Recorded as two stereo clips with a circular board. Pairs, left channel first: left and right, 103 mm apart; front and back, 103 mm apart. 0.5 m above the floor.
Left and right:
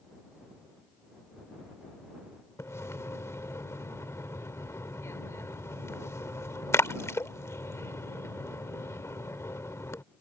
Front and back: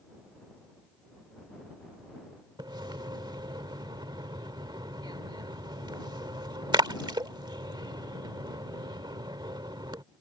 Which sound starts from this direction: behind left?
A splash, at 2.6 s.